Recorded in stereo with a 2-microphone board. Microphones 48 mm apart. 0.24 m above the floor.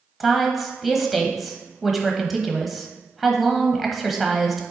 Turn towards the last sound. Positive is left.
turn(degrees=-5)  # may be behind; listen again after turning